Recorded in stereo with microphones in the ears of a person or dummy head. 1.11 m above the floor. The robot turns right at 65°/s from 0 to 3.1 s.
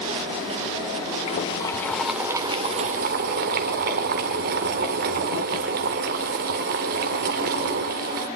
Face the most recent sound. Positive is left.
turn(degrees=-115)